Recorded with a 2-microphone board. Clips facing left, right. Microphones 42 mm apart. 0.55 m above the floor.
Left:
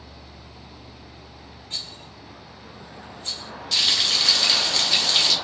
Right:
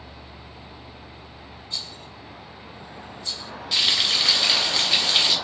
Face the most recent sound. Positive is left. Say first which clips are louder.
# even
turn(degrees=-10)  # may be behind; listen again after turning